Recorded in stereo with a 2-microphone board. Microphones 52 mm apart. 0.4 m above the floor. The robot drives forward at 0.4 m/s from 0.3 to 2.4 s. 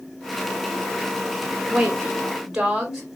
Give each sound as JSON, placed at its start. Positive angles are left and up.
{"t": 1.7, "sound": "a woman speaking", "side_deg": -10, "distance_m": 1.4}